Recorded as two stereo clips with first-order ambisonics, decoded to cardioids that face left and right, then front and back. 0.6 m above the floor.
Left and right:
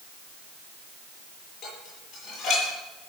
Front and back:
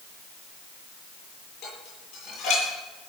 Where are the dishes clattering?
30° left, 10 m.